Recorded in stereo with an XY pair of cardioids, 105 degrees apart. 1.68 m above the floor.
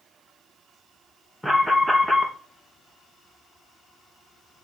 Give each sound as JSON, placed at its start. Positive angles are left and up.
{"t": 1.4, "sound": "an alarm", "azimuth_deg": -5, "distance_m": 1.9}